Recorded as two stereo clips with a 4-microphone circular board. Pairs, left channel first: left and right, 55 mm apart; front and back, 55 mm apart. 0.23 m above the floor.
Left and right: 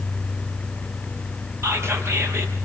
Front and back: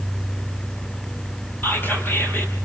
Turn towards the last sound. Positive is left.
turn(degrees=-50)